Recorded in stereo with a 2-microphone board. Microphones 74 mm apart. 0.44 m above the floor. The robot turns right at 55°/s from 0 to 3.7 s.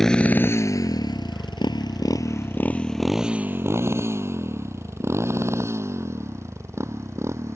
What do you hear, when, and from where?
0.0 s a motorcycle: 5° left (ahead or behind); by 7.6 s 40° right (ahead or behind)